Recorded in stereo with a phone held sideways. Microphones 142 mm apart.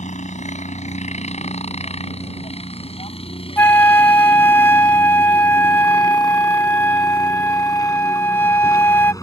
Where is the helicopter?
55° left (ahead or behind); by 9.2 s 25° left (ahead or behind).